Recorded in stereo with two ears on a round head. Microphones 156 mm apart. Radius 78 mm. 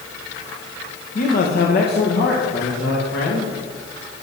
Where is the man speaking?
50° left (ahead or behind), 1.5 m; by 3.5 s 70° left (ahead or behind), 3 m.